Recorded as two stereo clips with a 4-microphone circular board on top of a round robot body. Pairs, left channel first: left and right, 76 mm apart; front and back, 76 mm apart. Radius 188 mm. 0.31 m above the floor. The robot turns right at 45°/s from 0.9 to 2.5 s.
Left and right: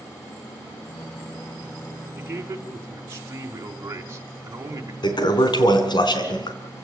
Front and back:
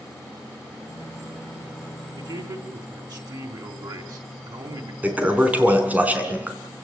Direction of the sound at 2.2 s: 160° right.